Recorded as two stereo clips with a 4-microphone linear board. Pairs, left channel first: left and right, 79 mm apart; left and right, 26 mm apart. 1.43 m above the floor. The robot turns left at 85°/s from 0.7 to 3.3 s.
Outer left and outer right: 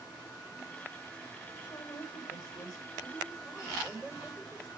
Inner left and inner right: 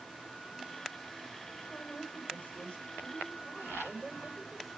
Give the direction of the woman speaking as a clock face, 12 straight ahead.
7 o'clock.